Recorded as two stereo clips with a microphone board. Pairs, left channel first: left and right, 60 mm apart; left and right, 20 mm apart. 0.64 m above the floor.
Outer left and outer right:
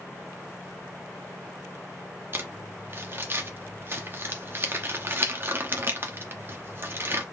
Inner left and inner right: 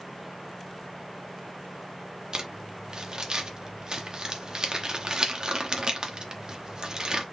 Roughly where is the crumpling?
Right.